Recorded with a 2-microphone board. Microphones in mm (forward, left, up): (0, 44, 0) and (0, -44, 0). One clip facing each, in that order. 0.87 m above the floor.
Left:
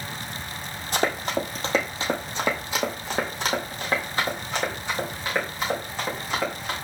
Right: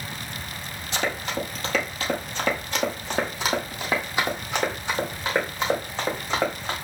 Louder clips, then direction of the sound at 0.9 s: Left 3 dB; 45° left (ahead or behind).